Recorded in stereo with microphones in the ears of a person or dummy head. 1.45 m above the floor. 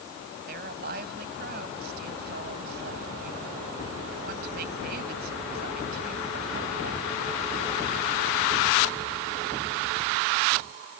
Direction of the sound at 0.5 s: 50° right (ahead or behind).